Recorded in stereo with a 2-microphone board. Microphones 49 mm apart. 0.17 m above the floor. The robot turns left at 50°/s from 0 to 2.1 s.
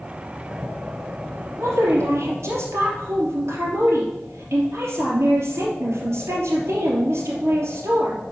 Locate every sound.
1.6 s a woman speaking: 70° right (ahead or behind), 3 m; by 8.2 s 65° right (ahead or behind), 3 m